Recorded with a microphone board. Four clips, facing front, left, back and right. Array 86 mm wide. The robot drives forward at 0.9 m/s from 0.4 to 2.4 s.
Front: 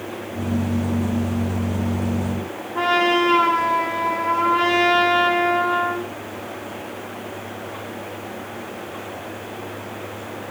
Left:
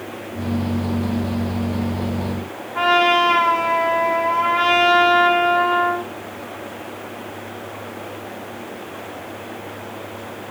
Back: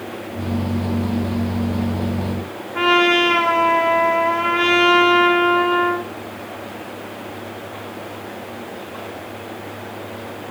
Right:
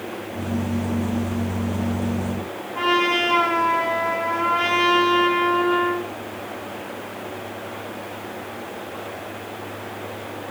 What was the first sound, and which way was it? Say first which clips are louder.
A trumpet: left 5 dB, back 2 dB; 175° left.